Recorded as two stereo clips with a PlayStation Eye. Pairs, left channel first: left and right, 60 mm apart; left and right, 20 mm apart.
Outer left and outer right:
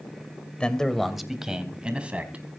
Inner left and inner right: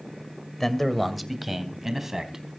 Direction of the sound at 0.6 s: 15° left (ahead or behind).